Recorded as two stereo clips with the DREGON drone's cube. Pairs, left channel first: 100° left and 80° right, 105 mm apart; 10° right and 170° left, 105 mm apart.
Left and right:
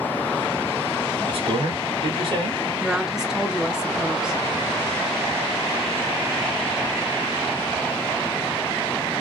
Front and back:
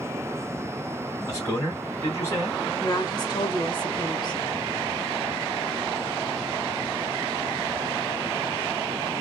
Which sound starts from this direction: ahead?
A woman speaking, at 2.8 s.